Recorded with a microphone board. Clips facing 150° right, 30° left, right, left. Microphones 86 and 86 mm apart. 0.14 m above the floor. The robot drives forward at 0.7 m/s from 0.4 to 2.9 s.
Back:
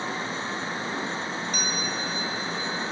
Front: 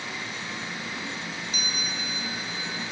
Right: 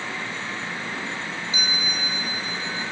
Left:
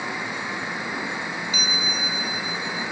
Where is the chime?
150° right, 3 m; by 2.9 s 160° right, 3.5 m.